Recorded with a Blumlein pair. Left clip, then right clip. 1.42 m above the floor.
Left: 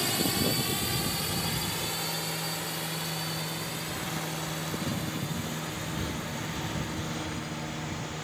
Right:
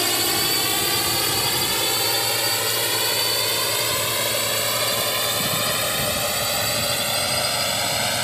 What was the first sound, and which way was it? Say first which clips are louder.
A drone: right 7 dB; 25° right.